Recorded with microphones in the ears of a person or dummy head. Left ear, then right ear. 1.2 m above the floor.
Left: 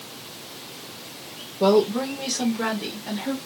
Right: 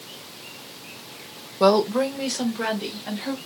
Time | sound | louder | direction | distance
1.6 | a woman speaking | right 1 dB | 65° right (ahead or behind) | 0.8 m